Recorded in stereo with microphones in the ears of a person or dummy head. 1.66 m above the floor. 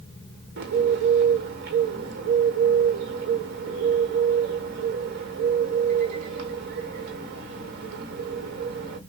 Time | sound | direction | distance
0.6 | a bird | 55° right (ahead or behind) | 1.3 m